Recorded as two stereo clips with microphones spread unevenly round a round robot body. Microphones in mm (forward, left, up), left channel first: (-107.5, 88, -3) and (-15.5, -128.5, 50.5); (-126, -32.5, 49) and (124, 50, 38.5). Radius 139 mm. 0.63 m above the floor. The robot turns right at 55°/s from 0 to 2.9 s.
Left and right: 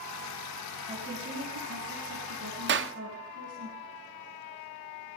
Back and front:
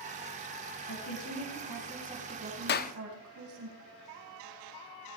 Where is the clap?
115° right, 0.8 m; by 2.9 s 100° right, 0.8 m.